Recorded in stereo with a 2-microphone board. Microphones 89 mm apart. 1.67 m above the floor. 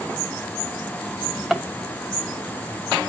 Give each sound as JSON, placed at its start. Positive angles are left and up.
{"t": 1.1, "sound": "a drawer", "side_deg": -5, "distance_m": 2.5}